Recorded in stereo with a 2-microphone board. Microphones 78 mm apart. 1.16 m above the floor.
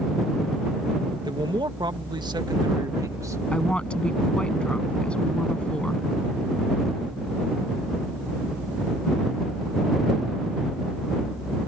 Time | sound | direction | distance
1.2 | a man speaking | 70° right (ahead or behind) | ?
3.5 | a woman speaking | 15° left (ahead or behind) | ?